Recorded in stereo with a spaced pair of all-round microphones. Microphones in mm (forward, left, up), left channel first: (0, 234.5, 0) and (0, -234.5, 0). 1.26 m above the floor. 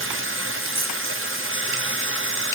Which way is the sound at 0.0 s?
25° right (ahead or behind).